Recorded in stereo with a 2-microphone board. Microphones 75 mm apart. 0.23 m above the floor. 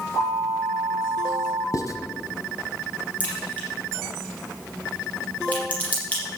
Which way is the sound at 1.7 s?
45° left (ahead or behind).